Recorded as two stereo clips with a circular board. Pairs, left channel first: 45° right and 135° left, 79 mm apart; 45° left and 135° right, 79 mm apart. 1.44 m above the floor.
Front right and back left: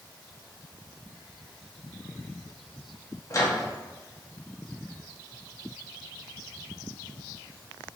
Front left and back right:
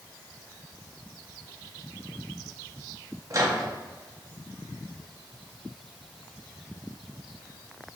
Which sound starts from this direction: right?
A microwave, at 3.3 s.